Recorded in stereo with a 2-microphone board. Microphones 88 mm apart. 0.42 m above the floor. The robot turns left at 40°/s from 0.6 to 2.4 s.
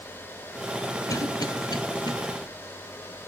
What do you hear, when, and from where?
1.1 s a cough: 40° left (ahead or behind), 1.6 m; by 2.1 s 55° left (ahead or behind), 1.6 m